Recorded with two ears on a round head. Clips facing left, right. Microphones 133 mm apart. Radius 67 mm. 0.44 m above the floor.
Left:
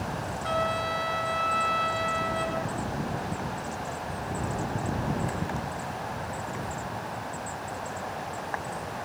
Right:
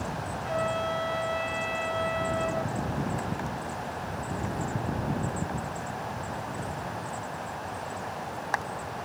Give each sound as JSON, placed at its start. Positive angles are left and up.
{"t": 0.4, "sound": "a trumpet", "side_deg": 80, "distance_m": 5.5}